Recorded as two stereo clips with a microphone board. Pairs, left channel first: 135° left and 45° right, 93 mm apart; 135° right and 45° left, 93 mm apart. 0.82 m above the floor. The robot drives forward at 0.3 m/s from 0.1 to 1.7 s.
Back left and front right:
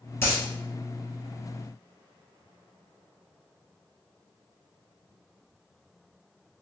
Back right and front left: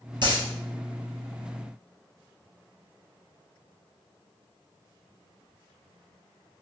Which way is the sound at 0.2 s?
75° left.